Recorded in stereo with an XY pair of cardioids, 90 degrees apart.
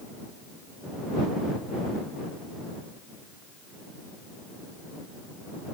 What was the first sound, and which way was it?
Only background noise.